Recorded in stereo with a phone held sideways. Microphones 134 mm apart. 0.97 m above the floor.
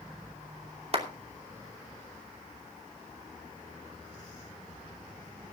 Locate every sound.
0.9 s a clap: 45° right (ahead or behind), 2.5 m